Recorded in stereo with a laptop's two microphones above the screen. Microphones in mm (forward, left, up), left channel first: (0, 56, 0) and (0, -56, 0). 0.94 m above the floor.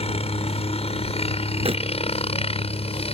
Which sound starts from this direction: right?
Crumpling, at 1.6 s.